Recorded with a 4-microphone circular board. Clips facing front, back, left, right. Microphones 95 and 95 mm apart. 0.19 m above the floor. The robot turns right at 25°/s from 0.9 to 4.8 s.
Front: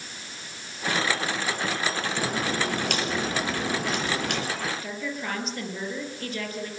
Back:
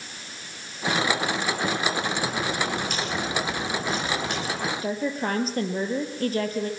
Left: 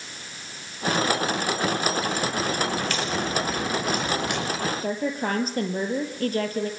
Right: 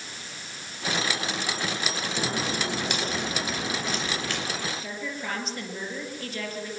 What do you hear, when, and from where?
2.2 s a crack: 35° right, 4.5 m; by 4.5 s 25° left, 4.5 m
4.8 s a woman speaking: 130° left, 3.5 m